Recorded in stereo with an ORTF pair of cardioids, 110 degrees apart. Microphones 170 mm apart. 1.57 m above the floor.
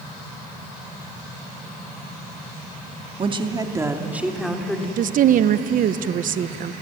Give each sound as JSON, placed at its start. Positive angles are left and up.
{"t": 3.2, "sound": "a woman speaking", "azimuth_deg": -35, "distance_m": 2.5}
{"t": 5.0, "sound": "a woman speaking", "azimuth_deg": -55, "distance_m": 1.1}